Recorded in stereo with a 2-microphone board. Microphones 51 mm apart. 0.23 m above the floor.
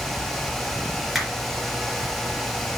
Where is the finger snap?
5° right (ahead or behind), 3.5 m.